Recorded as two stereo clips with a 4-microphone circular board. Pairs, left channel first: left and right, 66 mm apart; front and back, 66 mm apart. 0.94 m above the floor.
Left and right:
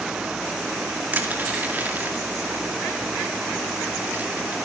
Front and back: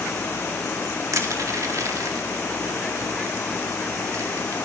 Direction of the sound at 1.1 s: 150° right.